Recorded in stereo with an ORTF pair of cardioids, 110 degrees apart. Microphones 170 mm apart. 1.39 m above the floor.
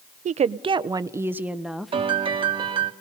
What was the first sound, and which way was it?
A woman speaking, 45° right.